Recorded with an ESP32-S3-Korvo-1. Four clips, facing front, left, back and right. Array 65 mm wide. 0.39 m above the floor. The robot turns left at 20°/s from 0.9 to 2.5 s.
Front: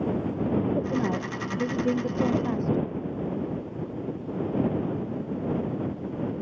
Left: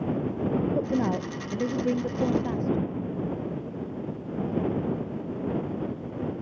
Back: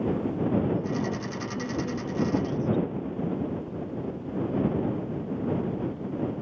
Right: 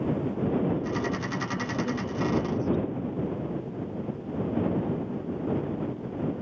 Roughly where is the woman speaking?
Left.